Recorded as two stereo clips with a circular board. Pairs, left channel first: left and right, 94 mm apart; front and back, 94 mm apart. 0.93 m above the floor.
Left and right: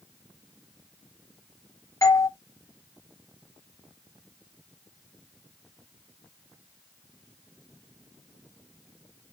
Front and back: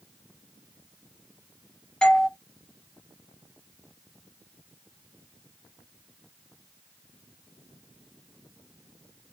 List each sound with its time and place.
2.0 s a doorbell: 75° left, 0.7 m